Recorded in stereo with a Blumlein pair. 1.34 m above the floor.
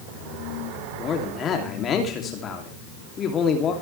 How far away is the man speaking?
About 3 m.